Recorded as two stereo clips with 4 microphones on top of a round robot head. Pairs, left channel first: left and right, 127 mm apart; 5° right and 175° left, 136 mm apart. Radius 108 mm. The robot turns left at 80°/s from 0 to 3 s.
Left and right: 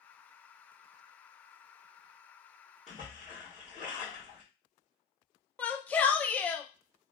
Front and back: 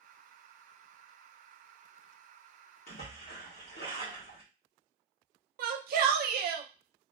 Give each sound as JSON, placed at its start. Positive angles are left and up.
{"t": 2.9, "sound": "a splash", "azimuth_deg": 0, "distance_m": 1.3}
{"t": 5.6, "sound": "a shout", "azimuth_deg": 170, "distance_m": 0.7}